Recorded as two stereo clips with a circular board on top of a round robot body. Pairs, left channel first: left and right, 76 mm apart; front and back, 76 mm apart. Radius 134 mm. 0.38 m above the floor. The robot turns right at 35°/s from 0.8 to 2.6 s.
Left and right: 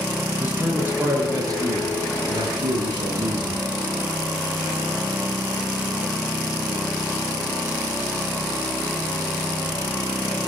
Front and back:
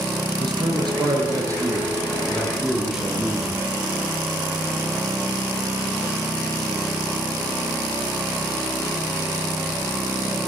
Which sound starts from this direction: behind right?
A man speaking, at 0.4 s.